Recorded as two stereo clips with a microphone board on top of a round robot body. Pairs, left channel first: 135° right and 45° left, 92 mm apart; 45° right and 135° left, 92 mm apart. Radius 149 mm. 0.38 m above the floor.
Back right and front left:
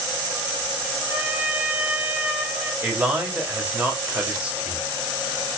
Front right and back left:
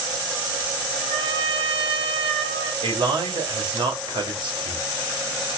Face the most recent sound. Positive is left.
turn(degrees=120)